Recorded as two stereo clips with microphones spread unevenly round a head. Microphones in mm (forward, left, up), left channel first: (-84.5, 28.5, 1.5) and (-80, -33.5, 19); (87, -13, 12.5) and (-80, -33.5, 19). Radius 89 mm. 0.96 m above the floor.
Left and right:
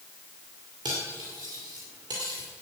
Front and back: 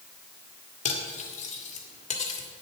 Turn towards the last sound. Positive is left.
turn(degrees=-40)